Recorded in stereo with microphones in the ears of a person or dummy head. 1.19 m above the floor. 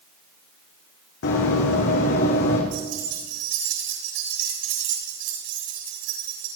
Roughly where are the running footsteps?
Left.